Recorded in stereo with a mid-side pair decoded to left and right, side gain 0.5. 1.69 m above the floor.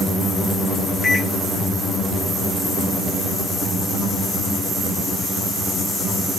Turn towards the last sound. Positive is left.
turn(degrees=5)